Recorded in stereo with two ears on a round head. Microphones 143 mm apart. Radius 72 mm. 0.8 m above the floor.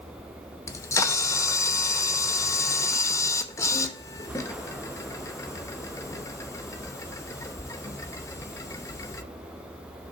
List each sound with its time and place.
0.7 s a camera shutter: 20° left (ahead or behind), 0.6 m